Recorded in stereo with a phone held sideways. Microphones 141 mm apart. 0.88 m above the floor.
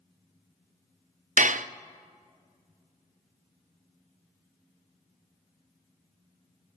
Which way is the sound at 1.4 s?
65° right (ahead or behind).